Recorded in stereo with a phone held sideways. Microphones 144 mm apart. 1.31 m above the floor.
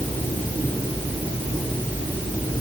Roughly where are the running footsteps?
I don't hear running footsteps.